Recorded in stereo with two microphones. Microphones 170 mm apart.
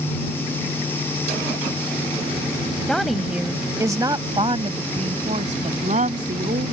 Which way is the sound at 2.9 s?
5° left (ahead or behind).